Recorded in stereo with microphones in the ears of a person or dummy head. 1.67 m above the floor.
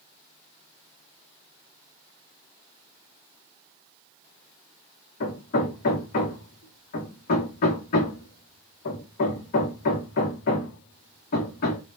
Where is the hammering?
55° left (ahead or behind), 0.9 m.